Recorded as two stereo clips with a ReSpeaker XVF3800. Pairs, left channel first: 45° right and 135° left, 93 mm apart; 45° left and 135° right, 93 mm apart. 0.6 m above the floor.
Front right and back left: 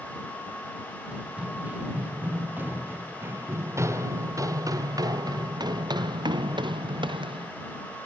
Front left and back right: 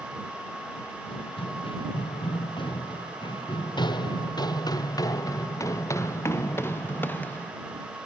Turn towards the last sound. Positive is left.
turn(degrees=120)